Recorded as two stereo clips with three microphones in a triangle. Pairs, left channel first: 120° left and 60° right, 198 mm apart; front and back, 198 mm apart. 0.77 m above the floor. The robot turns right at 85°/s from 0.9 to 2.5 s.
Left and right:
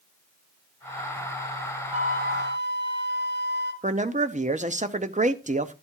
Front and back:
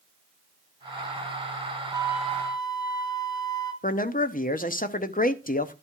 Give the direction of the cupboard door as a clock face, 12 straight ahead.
I don't hear a cupboard door.